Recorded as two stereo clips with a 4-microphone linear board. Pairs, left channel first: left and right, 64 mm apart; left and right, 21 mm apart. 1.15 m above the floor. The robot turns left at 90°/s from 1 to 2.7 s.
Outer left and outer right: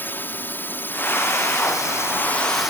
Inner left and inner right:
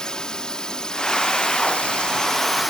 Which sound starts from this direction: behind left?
A drone, at 0.0 s.